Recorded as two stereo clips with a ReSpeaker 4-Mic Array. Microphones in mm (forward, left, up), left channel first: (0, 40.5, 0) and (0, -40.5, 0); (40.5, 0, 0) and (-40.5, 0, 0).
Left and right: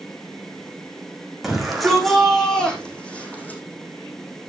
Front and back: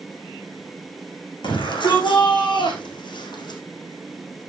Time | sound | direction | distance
1.4 | a shout | 5° right | 7 m